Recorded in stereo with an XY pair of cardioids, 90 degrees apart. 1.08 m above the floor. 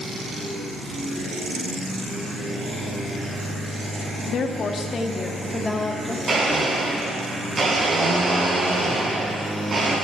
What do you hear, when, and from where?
4.3 s a woman speaking: 70° left, 1.8 m; by 6.2 s 10° left, 2.5 m
6.3 s a blender: 40° right, 7.5 m